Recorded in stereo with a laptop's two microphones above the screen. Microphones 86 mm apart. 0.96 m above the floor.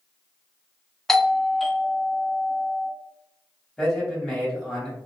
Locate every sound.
1.1 s a doorbell: 5° left (ahead or behind), 0.6 m
3.8 s a man speaking: centre (ahead or behind), 1.5 m